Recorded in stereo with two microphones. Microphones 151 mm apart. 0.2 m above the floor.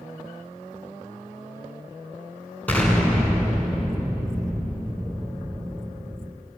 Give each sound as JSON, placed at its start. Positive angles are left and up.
{"t": 2.7, "sound": "an explosion", "side_deg": 10, "distance_m": 2.0}